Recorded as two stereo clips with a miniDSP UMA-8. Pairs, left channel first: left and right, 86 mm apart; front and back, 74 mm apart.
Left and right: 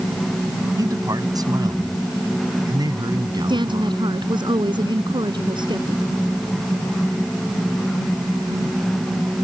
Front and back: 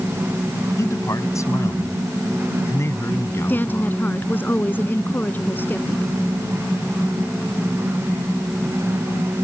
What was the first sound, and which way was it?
A man speaking, 45° right.